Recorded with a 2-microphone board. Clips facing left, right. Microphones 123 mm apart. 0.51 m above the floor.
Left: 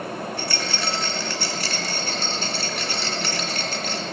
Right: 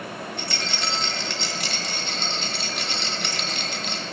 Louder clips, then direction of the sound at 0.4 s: Left 3 dB; 20° right (ahead or behind).